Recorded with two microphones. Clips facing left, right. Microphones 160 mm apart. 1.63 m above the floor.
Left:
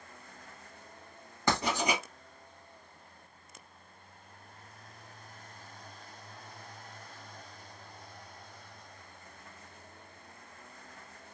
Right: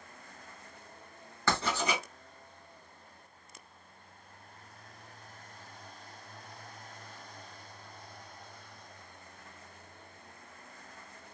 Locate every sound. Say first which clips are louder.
1.5 s writing: left 1 dB; 20° left (ahead or behind), 1.4 m